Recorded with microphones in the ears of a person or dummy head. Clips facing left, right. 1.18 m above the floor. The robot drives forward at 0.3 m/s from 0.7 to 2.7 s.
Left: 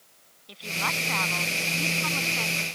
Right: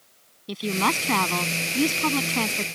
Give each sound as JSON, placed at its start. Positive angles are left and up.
{"t": 0.5, "sound": "a woman speaking", "side_deg": -60}